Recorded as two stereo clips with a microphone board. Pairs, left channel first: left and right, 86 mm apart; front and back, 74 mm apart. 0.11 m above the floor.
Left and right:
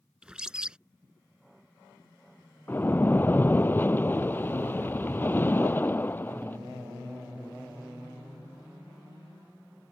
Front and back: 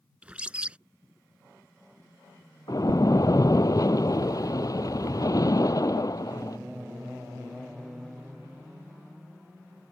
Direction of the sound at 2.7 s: 25° left.